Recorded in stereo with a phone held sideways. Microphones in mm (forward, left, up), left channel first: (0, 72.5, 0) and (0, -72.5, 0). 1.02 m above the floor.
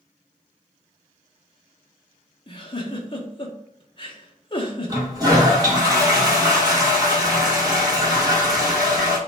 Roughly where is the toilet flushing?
Right.